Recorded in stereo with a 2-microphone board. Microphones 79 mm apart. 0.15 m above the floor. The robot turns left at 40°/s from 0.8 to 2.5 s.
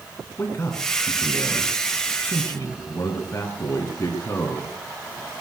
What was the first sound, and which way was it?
A man speaking, 130° left.